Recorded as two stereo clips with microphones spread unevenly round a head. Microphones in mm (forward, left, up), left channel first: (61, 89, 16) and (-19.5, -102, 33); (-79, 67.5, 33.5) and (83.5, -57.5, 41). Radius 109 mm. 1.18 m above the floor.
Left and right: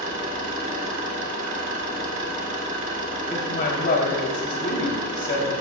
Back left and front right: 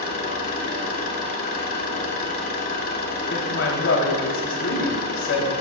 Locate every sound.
0.0 s an engine running: 170° right, 2.5 m
3.3 s a woman speaking: 115° left, 3 m